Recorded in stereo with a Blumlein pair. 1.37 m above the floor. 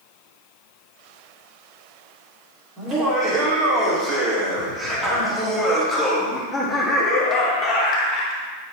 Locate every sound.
2.8 s laughter: 30° right, 3.5 m; by 8.4 s 35° left, 2 m